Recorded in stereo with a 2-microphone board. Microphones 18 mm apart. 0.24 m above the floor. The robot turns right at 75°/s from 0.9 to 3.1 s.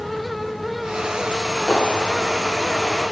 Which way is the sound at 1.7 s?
120° left.